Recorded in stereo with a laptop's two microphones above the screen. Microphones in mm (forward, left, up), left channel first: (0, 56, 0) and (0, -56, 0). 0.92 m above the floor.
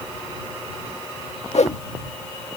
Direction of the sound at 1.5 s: 70° left (ahead or behind).